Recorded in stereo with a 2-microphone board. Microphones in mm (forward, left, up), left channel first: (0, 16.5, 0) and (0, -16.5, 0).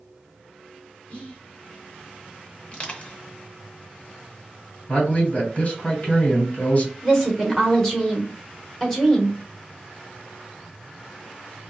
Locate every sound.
1.1 s whispering: 30° left (ahead or behind), 1.1 m
2.7 s crushing: 35° left (ahead or behind), 0.8 m
4.9 s a man speaking: 45° left (ahead or behind), 1.8 m
7.0 s a woman speaking: 10° left (ahead or behind), 1.1 m